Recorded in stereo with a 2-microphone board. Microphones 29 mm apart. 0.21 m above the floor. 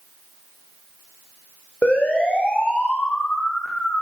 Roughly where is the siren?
Left.